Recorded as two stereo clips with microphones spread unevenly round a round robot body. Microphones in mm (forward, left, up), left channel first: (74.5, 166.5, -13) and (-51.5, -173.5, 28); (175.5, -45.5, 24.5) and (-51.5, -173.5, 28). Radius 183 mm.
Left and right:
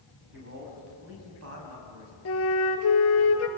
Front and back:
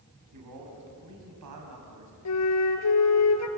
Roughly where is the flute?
Ahead.